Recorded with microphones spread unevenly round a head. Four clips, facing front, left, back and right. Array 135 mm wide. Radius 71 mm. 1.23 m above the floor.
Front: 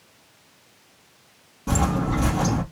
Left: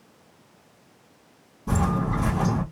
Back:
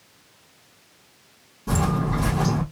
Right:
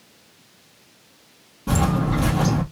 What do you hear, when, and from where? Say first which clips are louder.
1.7 s footsteps: right 3 dB, front 1 dB; 60° right, 1.7 m